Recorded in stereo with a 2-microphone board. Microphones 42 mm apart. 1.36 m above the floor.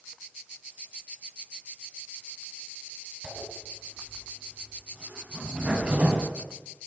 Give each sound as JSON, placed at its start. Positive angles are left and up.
{"t": 3.2, "sound": "a zipper", "side_deg": -35, "distance_m": 7.5}